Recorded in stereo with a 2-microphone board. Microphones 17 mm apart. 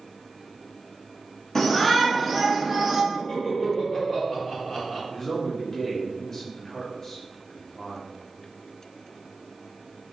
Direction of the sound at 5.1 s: 30° left (ahead or behind).